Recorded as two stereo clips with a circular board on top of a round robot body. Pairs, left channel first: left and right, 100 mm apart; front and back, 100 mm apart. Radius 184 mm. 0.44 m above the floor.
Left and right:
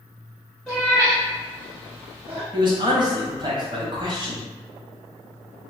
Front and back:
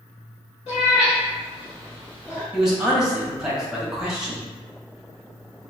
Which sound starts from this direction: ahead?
A cat meowing, at 0.7 s.